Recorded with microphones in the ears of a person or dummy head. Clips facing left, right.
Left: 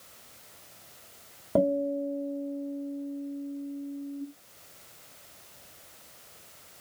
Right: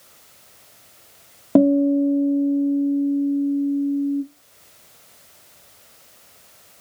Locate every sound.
1.6 s a guitar: 65° right (ahead or behind), 0.8 m